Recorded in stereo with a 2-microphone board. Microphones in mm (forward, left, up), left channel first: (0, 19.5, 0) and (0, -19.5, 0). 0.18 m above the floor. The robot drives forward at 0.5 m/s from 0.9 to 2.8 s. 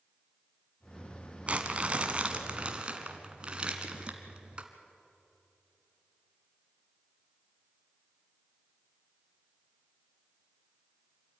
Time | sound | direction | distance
1.5 | crumpling | 35° right (ahead or behind) | 1.4 m